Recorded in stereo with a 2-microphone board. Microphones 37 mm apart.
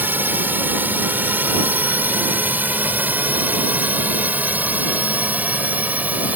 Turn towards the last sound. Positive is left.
turn(degrees=-45)  # may be behind; listen again after turning